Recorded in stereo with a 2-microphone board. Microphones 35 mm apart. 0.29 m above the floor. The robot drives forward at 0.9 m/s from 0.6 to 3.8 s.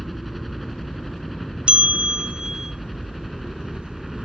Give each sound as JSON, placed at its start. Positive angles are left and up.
{"t": 0.0, "sound": "a helicopter", "side_deg": 5}
{"t": 1.7, "sound": "a bell", "side_deg": -35}